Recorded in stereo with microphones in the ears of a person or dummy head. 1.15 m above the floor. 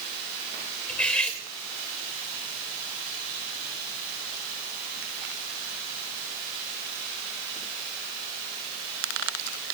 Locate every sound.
0.9 s cutlery clinking: 5° left (ahead or behind), 2.5 m